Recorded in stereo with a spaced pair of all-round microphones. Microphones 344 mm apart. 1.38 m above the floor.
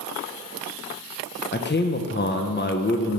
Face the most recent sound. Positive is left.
turn(degrees=30)  # may be behind; listen again after turning